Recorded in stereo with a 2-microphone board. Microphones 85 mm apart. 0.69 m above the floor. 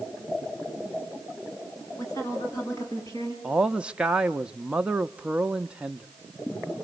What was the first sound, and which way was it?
A woman speaking, 35° left (ahead or behind).